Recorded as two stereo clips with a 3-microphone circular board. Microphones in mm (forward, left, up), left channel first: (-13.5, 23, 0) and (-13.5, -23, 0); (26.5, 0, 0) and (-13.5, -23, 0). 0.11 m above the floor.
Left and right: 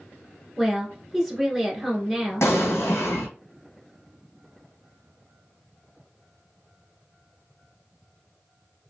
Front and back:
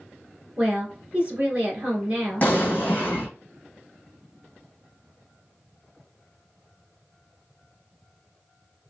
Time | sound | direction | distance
0.6 | a woman speaking | 175° right | 1.6 m
2.4 | an explosion | 85° left | 1.3 m